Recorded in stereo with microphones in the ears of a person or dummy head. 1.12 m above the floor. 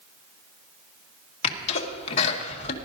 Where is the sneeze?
35° left (ahead or behind), 1.8 m.